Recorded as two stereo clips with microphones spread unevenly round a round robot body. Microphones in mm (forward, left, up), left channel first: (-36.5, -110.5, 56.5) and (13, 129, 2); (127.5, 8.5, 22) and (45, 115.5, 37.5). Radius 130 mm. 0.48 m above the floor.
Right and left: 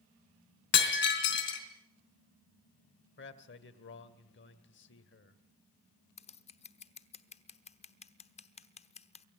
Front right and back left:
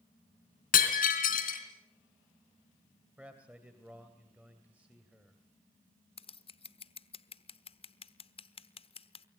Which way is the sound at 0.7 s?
50° right.